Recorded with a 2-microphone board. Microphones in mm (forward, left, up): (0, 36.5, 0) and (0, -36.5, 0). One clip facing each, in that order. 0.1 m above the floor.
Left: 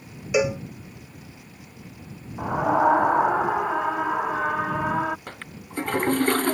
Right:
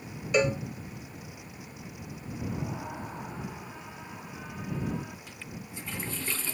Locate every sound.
0.3 s a cowbell: 10° left (ahead or behind)
2.4 s a scream: 70° left (ahead or behind)
5.3 s a toilet flushing: 60° left (ahead or behind)